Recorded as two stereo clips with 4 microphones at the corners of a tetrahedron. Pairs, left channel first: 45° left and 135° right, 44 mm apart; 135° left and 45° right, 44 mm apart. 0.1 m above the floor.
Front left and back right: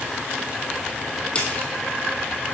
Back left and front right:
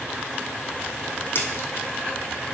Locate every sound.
1.4 s a splash: 110° left, 1.8 m